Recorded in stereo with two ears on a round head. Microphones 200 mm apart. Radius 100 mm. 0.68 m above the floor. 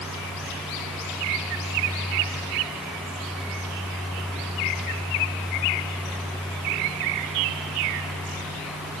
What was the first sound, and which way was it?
Only background noise.